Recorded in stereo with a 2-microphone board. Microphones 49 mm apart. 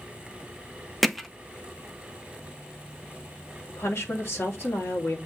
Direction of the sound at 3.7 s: 55° left (ahead or behind).